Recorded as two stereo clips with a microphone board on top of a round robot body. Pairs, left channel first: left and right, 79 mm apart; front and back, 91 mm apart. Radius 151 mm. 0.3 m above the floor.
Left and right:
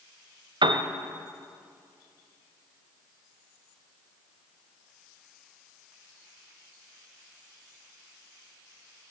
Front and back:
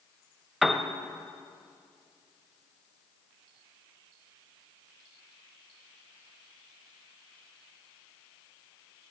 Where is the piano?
90° right, 0.8 m.